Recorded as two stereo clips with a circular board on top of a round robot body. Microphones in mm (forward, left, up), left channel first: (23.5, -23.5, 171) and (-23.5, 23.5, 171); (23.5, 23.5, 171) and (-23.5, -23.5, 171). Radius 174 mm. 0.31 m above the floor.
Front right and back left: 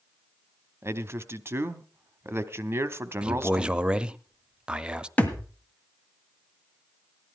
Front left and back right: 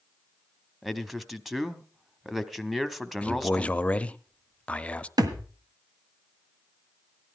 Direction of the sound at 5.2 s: 110° right.